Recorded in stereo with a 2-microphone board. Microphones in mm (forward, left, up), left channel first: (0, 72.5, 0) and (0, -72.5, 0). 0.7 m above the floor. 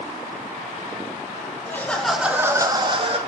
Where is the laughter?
15° left (ahead or behind), 0.8 m; by 3.2 s 40° right (ahead or behind), 1.0 m.